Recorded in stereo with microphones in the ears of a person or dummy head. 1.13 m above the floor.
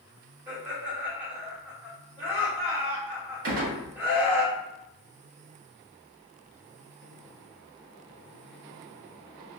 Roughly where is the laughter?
Centre.